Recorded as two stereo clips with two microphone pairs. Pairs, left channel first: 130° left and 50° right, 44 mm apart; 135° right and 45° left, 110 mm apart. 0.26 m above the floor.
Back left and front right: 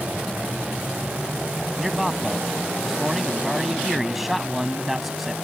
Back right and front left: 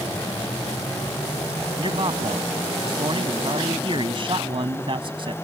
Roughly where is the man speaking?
Ahead left.